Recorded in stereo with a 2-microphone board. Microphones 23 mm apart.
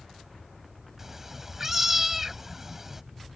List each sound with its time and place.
1.0 s a cat meowing: 10° right (ahead or behind)